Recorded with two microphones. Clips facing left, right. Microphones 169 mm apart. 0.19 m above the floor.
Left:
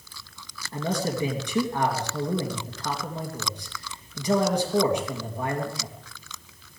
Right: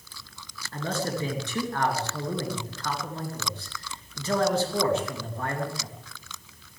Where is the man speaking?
15° left (ahead or behind), 3 m.